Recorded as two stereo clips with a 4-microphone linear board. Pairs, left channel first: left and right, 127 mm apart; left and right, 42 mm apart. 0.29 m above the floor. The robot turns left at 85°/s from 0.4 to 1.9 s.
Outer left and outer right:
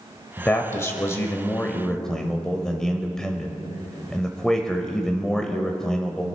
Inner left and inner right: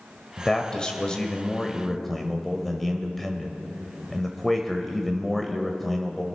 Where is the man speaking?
15° left (ahead or behind), 1.0 m; by 6.2 s 5° left (ahead or behind), 1.0 m.